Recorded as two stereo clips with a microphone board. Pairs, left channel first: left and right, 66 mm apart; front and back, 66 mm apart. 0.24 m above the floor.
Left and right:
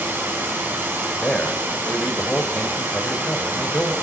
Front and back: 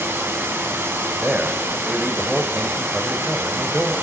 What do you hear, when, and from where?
0.0 s running water: 135° right, 2 m
1.2 s a man speaking: 125° left, 1.2 m